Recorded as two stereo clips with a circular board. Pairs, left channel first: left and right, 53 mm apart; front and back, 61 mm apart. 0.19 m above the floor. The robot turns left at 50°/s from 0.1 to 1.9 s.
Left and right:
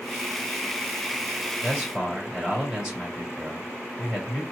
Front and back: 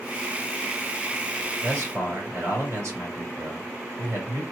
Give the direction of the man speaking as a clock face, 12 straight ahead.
5 o'clock.